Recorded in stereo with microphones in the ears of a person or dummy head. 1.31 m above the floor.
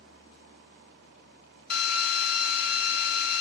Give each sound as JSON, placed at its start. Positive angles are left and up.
{"t": 1.7, "sound": "a drill", "side_deg": 65, "distance_m": 1.2}